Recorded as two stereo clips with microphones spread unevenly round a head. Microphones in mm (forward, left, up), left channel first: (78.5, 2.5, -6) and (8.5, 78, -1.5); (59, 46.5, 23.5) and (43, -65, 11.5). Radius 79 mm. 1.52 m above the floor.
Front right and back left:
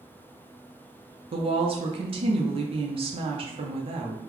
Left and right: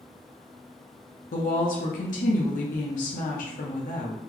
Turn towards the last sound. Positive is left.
turn(degrees=100)